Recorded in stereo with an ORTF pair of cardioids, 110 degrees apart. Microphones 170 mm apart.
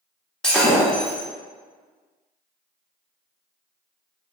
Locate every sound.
0.4 s breaking glass: 5° left, 1.6 m